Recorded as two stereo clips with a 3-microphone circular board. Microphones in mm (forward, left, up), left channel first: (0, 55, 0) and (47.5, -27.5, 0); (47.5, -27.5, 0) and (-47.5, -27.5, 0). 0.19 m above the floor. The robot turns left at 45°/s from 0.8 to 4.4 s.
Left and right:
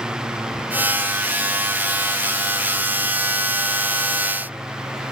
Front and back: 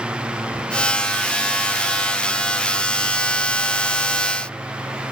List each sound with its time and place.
Only background noise.